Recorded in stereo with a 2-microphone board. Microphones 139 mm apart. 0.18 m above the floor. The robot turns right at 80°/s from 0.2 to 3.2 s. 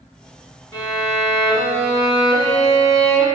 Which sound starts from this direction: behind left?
A violin, at 0.7 s.